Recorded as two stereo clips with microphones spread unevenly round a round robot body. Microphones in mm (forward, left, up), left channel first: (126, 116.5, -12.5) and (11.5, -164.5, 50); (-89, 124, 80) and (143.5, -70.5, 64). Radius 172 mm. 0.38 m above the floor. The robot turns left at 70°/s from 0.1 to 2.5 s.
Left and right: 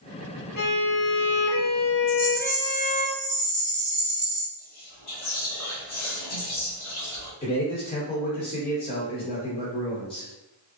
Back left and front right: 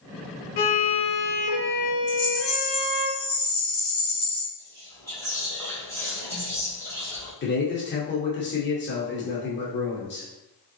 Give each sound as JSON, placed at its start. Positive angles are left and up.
{"t": 0.6, "sound": "a violin", "azimuth_deg": 135, "distance_m": 0.8}
{"t": 2.1, "sound": "a rattle", "azimuth_deg": 145, "distance_m": 2.0}
{"t": 4.6, "sound": "whispering", "azimuth_deg": 60, "distance_m": 1.5}
{"t": 7.4, "sound": "a man speaking", "azimuth_deg": 110, "distance_m": 0.9}